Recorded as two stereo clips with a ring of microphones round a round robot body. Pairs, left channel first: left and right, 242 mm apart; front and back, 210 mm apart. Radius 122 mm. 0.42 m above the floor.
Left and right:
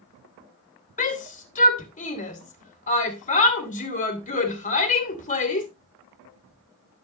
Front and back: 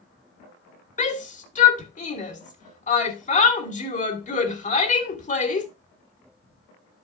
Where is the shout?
40° left, 2.0 m.